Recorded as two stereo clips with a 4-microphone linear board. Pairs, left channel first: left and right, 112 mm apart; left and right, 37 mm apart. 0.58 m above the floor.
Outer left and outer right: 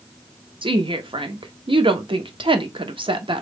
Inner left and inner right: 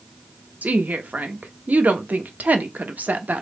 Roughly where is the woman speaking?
Right.